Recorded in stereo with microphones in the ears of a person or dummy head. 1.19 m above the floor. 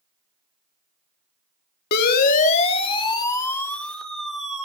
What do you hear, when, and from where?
1.9 s a siren: 55° left (ahead or behind), 2.5 m; by 4.7 s 5° right (ahead or behind), 4 m